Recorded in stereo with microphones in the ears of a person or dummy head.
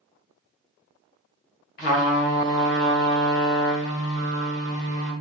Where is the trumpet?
35° left (ahead or behind), 1.1 m.